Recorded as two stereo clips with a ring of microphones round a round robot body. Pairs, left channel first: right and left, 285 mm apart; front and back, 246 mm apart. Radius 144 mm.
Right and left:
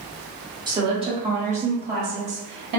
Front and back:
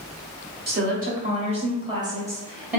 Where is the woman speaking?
155° left, 1.7 m; by 2.8 s 95° left, 1.6 m.